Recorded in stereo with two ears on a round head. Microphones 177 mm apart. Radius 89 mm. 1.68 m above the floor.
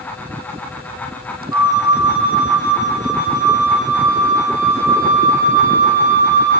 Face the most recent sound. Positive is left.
turn(degrees=-15)  # may be behind; listen again after turning